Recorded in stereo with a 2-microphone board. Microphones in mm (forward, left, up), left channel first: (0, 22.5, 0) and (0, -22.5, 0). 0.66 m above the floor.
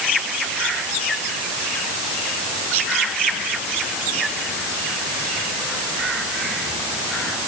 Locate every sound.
Only background noise.